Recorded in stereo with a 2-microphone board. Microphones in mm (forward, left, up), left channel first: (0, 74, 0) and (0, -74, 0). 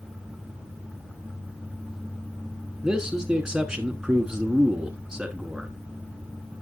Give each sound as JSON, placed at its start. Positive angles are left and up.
{"t": 2.8, "sound": "a man speaking", "side_deg": -5, "distance_m": 1.1}